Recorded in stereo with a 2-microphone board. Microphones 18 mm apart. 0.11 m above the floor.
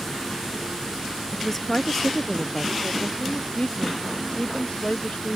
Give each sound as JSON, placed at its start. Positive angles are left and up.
{"t": 1.3, "sound": "a woman speaking", "side_deg": 20}
{"t": 3.2, "sound": "a woman speaking", "side_deg": 85}